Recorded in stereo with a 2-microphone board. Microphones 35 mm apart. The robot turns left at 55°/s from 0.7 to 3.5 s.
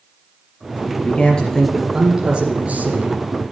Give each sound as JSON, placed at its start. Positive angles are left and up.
{"t": 1.0, "sound": "a man speaking", "azimuth_deg": 45, "distance_m": 3.0}